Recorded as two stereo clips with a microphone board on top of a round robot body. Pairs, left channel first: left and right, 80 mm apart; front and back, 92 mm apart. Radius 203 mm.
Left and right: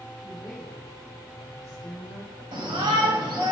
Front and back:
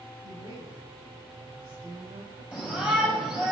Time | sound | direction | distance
0.2 | a woman speaking | 170° right | 4.5 m
2.5 | a shout | 105° right | 2.5 m